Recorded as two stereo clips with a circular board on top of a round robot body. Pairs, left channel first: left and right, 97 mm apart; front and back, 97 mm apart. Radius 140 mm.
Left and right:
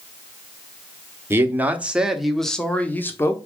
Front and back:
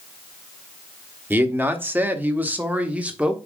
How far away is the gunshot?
I don't hear a gunshot.